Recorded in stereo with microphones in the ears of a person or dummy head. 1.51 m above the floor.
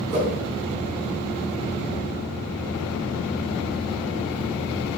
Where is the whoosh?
50° right (ahead or behind), 3 m.